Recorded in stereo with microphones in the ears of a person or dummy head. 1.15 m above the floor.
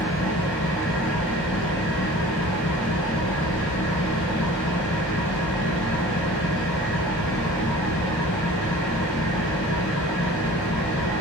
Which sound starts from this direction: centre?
An engine running, at 0.0 s.